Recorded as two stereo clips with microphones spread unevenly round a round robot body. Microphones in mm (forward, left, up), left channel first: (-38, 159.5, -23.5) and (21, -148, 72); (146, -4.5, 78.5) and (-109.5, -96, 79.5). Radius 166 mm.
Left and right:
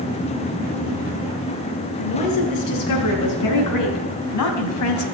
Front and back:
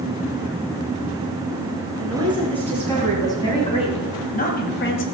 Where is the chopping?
I don't hear chopping.